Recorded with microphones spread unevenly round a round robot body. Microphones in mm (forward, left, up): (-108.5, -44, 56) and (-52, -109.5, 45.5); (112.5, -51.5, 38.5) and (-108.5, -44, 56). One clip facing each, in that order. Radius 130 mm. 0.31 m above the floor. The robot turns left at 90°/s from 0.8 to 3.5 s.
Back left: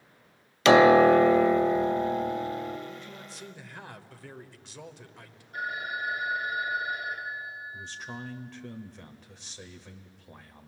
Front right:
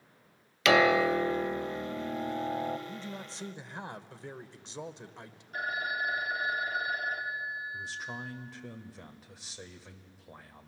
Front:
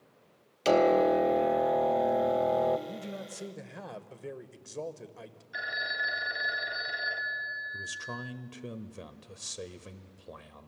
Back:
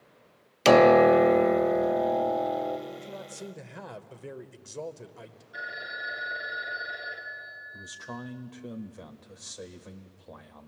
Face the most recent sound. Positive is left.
turn(degrees=20)